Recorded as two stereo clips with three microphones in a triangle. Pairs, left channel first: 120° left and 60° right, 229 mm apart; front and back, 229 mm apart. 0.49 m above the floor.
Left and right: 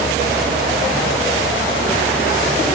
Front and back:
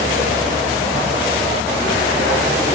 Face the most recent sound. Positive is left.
No sound to turn to.